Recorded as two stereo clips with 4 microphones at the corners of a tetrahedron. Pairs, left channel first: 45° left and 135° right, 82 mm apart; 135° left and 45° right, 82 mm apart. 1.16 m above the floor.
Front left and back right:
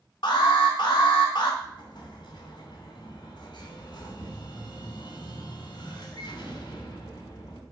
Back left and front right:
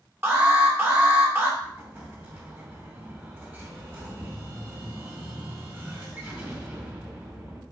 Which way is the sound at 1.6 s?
20° left.